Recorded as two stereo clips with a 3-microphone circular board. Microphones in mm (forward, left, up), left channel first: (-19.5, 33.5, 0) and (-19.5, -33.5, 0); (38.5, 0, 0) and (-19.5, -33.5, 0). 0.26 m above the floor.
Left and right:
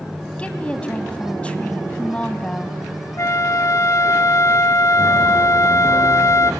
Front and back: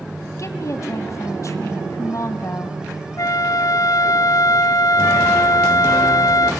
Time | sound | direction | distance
0.4 | a woman speaking | 25° left | 2.0 m
3.2 | a flute | 55° left | 0.7 m